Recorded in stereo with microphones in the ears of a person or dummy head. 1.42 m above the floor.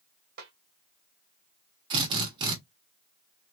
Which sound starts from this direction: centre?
A drill, at 1.9 s.